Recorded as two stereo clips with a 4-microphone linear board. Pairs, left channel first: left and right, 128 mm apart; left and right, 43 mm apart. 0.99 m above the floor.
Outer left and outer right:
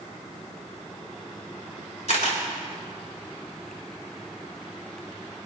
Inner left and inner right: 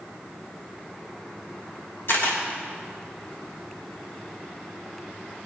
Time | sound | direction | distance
2.1 | a camera shutter | 60° left (ahead or behind) | 3 m